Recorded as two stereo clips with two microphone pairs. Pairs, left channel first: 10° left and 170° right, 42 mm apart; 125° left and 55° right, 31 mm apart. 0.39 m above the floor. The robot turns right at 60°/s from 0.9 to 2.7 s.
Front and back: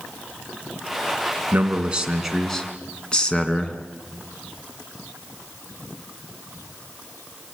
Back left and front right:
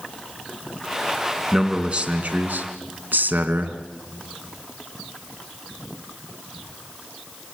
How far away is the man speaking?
About 3 m.